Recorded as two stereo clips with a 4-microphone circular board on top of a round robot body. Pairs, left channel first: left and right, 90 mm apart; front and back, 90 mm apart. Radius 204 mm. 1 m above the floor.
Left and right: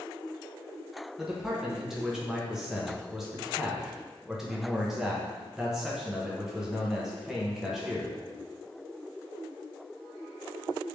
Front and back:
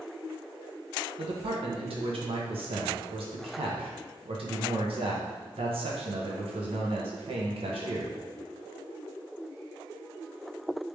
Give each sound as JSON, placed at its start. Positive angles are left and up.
{"t": 1.2, "sound": "a man speaking", "azimuth_deg": -175, "distance_m": 0.8}